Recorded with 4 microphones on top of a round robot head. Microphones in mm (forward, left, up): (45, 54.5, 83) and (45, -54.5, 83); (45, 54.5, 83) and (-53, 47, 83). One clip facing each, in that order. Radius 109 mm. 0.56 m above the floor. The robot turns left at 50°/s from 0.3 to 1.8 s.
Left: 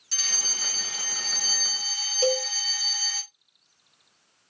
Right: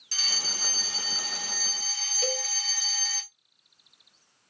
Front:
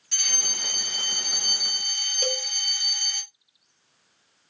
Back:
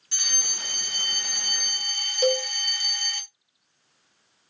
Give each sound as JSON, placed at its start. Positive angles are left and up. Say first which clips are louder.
{"t": 0.1, "sound": "a fire alarm", "louder": "right 1 dB, front 1 dB", "azimuth_deg": -120, "distance_m": 2.5}
{"t": 2.2, "sound": "a cowbell", "louder": "left 9 dB, back 8 dB", "azimuth_deg": 125, "distance_m": 1.1}